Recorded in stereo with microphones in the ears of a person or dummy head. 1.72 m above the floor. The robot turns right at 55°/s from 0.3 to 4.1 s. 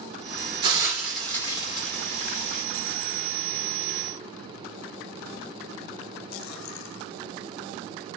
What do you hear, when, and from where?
0.6 s a hiss: 30° right (ahead or behind), 2.5 m; by 2.6 s 80° left, 2.5 m